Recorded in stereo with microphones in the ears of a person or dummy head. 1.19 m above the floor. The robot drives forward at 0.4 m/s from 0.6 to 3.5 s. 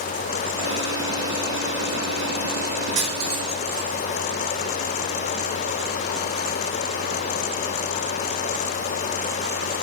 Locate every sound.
3.0 s cutlery clinking: 35° right (ahead or behind), 0.5 m; by 3.9 s 25° right (ahead or behind), 0.7 m